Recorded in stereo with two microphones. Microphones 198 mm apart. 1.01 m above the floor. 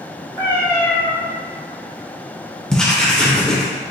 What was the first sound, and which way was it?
A cat meowing, 20° left (ahead or behind).